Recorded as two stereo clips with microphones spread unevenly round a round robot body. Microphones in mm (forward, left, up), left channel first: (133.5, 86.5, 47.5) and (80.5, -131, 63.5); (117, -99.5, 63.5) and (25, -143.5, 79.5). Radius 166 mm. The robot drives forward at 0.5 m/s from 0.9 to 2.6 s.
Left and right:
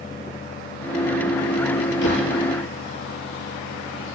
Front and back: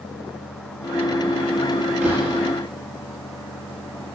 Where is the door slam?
120° left, 6.5 m; by 2.3 s 125° left, 6.5 m.